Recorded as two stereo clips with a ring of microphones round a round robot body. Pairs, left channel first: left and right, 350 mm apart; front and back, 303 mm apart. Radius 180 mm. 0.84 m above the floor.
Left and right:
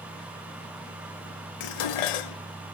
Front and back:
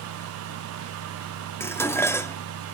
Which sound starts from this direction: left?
Dishes clattering, at 1.6 s.